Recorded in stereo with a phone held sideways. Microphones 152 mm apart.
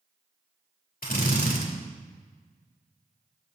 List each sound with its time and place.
1.0 s a drill: 80° left, 4 m